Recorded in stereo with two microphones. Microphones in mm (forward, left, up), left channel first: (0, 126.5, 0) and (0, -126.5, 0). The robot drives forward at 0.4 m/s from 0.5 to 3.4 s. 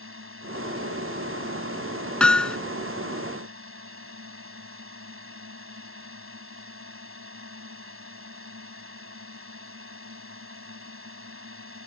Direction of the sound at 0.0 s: 55° right (ahead or behind).